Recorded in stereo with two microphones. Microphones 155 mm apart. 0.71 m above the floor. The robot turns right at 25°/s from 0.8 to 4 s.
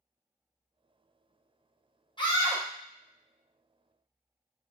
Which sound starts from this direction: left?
A scream, at 2.2 s.